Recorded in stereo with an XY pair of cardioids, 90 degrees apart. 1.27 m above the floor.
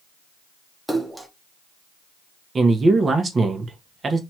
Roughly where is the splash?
Ahead.